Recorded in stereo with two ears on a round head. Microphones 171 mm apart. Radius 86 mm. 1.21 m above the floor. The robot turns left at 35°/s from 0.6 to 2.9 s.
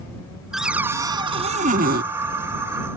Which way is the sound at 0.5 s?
Straight ahead.